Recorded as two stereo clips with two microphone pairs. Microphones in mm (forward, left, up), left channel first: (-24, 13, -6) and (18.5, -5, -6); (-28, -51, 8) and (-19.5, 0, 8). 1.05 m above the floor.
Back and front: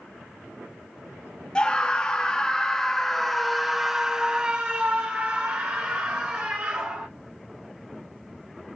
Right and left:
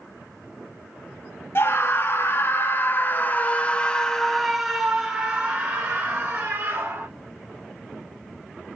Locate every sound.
1.6 s a scream: 135° right, 1.6 m; by 7.1 s 30° left, 1.7 m